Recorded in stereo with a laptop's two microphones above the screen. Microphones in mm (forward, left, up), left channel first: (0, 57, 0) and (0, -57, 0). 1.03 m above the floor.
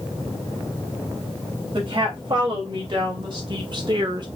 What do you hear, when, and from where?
1.7 s a woman speaking: 45° right (ahead or behind), 2.5 m; by 4.3 s 40° right (ahead or behind), 1.1 m